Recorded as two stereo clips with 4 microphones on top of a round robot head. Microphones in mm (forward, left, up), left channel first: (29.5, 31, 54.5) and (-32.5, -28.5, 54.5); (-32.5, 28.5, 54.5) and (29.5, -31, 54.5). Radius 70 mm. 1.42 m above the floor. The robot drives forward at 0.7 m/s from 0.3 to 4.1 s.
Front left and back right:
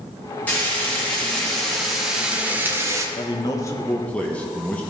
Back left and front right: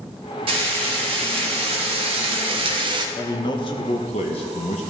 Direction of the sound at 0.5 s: 25° right.